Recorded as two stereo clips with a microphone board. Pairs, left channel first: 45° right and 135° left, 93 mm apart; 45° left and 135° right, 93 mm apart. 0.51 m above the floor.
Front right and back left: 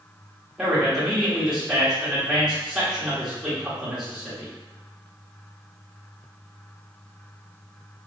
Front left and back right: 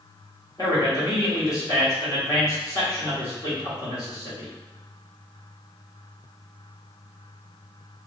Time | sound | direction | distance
0.6 | a man speaking | 50° left | 1.4 m